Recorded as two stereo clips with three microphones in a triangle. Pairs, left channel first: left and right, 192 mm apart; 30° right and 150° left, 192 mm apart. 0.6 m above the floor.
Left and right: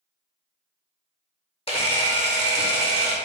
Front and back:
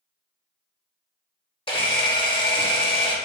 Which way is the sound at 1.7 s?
30° left.